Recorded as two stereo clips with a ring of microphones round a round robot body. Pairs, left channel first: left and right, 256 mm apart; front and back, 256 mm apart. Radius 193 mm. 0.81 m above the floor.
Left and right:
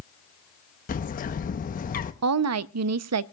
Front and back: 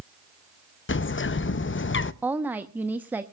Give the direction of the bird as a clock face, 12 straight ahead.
11 o'clock.